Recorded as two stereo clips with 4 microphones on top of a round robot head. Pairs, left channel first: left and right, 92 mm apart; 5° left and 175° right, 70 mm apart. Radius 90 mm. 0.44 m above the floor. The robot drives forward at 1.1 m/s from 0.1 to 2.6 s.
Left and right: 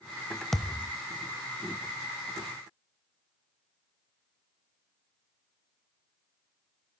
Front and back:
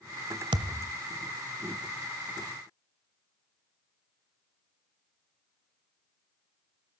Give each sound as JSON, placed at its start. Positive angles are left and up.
{"t": 0.5, "sound": "a thud", "azimuth_deg": 175, "distance_m": 0.6}